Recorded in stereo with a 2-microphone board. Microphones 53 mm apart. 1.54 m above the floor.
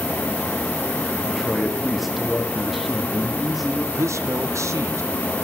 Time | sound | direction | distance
1.2 | a man speaking | centre (ahead or behind) | 1.2 m
4.0 | a man speaking | 75° right (ahead or behind) | 0.6 m